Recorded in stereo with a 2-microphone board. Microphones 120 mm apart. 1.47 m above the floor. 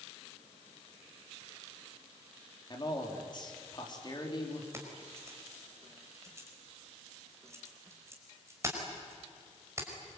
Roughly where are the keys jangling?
Right.